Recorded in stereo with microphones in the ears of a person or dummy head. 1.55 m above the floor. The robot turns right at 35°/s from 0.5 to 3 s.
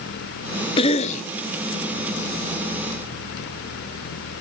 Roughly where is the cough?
Left.